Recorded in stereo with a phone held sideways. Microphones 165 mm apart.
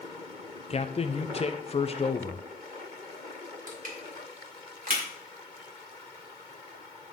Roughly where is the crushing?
Right.